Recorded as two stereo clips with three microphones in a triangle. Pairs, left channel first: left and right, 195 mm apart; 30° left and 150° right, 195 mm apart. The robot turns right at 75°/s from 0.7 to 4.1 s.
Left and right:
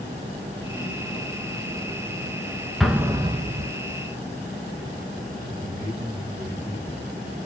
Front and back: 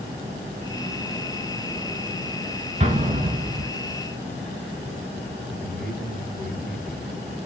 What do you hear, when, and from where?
2.8 s an explosion: straight behind, 0.5 m; by 3.7 s 115° right, 0.5 m
5.5 s a man speaking: 160° right, 2.5 m